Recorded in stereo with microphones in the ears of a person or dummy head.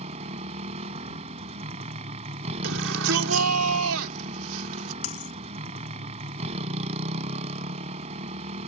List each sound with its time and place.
0.0 s a motorcycle: 35° right (ahead or behind)
2.6 s a shout: 80° right
5.0 s a dropped coin: 80° left